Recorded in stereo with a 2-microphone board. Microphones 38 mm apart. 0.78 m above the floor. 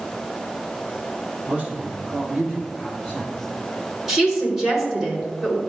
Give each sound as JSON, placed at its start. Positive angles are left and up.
{"t": 1.5, "sound": "a man speaking", "side_deg": -30, "distance_m": 2.5}
{"t": 4.1, "sound": "a woman speaking", "side_deg": -10, "distance_m": 3.0}